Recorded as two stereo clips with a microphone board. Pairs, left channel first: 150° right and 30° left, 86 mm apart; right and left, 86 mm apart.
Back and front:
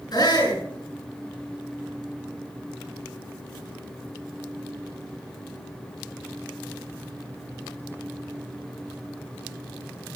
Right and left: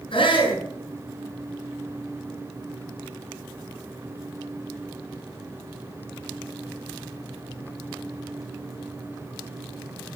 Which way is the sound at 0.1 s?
110° right.